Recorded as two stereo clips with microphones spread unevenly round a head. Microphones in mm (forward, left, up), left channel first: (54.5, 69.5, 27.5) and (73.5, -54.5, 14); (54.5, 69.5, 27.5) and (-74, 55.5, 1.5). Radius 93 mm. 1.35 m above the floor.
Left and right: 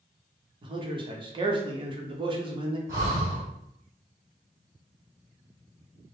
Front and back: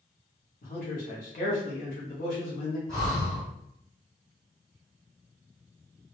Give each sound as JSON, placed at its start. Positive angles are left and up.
{"t": 0.6, "sound": "a man speaking", "azimuth_deg": -35, "distance_m": 0.8}
{"t": 2.9, "sound": "breathing", "azimuth_deg": -40, "distance_m": 1.2}